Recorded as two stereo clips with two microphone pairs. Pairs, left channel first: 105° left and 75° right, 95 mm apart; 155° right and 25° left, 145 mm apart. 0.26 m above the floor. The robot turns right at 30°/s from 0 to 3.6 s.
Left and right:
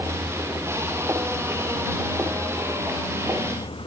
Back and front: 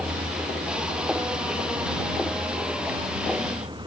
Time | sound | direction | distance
0.0 | a vehicle | 25° right | ?